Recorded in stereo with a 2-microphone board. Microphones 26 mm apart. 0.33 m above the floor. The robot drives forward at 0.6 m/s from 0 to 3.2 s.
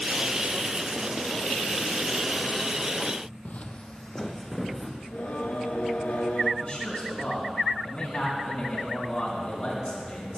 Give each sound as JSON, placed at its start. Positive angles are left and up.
{"t": 3.5, "sound": "footsteps", "side_deg": 65, "distance_m": 0.8}
{"t": 5.0, "sound": "singing", "side_deg": 70, "distance_m": 1.4}
{"t": 6.6, "sound": "a man speaking", "side_deg": 40, "distance_m": 4.0}